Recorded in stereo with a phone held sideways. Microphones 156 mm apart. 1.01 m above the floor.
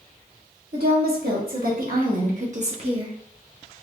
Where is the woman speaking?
80° right, 1.8 m; by 3.1 s 30° right (ahead or behind), 0.7 m.